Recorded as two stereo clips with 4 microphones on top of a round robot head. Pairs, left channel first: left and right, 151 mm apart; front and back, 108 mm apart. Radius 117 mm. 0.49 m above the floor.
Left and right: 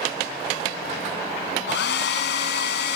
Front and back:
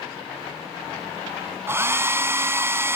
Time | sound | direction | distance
1.7 | a hair dryer | 115° left | 1.1 m